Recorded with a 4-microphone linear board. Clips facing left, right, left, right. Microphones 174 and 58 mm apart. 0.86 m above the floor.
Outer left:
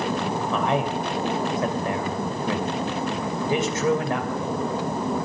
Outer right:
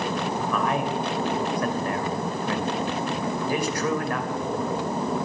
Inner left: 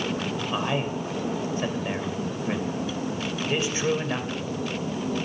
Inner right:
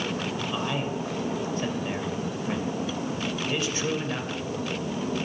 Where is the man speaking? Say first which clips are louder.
Outer left 2 dB, inner left 4 dB; 25° left (ahead or behind), 3 m.